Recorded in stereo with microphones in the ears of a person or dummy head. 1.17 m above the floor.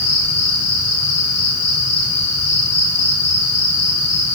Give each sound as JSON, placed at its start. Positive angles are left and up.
{"t": 0.0, "sound": "an insect", "side_deg": 35, "distance_m": 4.0}